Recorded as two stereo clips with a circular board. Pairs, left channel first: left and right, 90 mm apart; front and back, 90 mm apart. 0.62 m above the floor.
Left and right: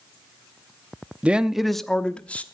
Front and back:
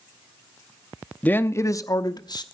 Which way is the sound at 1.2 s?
40° right.